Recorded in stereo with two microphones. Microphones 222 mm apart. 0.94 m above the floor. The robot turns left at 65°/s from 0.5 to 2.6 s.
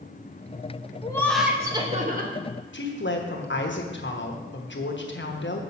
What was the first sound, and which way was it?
Laughter, 25° left.